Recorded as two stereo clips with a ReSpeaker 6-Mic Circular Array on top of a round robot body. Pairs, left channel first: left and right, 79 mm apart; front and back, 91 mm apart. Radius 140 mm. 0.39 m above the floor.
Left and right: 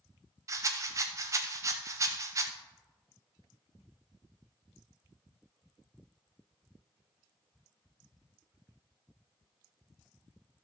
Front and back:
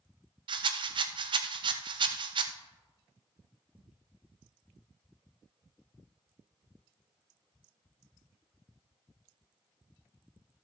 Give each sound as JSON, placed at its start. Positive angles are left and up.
{"t": 0.5, "sound": "a rattle", "azimuth_deg": -145, "distance_m": 0.5}